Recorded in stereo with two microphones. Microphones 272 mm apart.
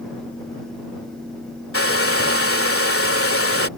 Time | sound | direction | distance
1.7 | a hair dryer | 60° left (ahead or behind) | ?